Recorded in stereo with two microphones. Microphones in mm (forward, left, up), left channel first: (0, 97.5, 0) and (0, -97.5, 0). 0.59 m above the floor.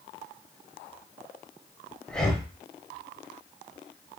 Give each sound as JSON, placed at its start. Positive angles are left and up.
{"t": 2.1, "sound": "breathing", "side_deg": 5, "distance_m": 0.9}